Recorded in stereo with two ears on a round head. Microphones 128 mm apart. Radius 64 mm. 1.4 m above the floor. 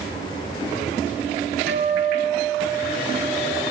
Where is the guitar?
75° right (ahead or behind), 6 m.